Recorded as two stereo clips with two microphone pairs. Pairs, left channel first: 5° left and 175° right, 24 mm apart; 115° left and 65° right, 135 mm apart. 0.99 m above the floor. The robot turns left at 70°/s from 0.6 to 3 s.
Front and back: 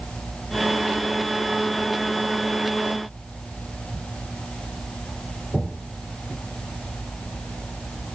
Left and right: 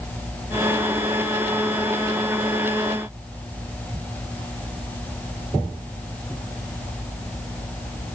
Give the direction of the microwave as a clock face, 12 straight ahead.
I don't hear a microwave.